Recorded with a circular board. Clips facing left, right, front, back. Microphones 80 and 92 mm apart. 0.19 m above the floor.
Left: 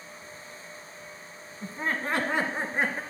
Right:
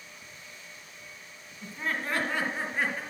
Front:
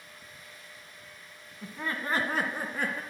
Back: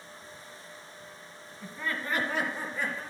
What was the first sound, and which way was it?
Laughter, 70° left.